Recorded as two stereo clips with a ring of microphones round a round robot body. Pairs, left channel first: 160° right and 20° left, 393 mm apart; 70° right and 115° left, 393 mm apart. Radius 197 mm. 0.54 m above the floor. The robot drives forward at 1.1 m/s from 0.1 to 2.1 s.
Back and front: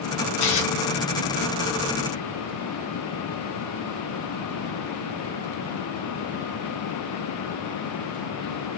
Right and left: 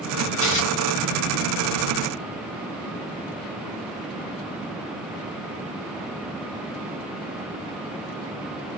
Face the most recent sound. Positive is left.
turn(degrees=-145)